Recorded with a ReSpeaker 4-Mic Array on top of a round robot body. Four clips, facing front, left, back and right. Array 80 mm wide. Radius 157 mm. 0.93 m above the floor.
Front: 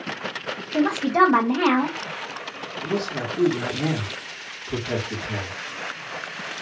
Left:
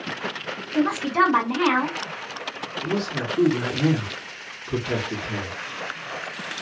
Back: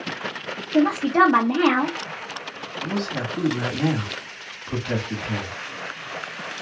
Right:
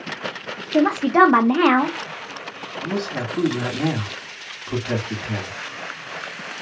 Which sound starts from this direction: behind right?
A man speaking, at 2.8 s.